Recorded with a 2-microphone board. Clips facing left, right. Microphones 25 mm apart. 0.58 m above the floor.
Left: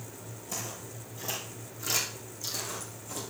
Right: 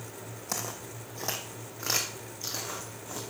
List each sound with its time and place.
0.5 s footsteps: 65° right (ahead or behind), 1.6 m; by 3.2 s 20° right (ahead or behind), 2.5 m